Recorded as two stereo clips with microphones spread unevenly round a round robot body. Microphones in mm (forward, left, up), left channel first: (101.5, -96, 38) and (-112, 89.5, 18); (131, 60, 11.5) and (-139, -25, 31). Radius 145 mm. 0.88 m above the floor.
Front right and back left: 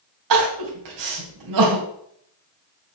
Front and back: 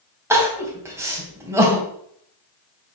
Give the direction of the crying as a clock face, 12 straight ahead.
8 o'clock.